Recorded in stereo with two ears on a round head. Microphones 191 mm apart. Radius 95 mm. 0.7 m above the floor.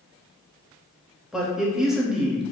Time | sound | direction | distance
1.3 | a man speaking | 5° right (ahead or behind) | 0.8 m